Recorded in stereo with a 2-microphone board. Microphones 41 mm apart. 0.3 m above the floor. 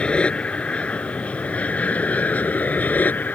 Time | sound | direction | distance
0.0 | an aircraft | 25° left (ahead or behind) | ?